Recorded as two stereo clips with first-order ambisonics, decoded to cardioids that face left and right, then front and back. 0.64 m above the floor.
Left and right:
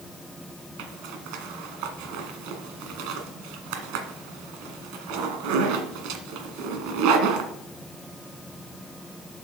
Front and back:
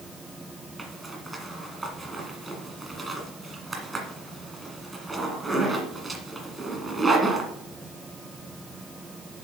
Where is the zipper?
100° right, 1.6 m.